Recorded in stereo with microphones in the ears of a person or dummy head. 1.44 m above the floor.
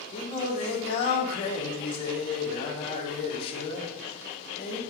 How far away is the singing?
About 1.6 m.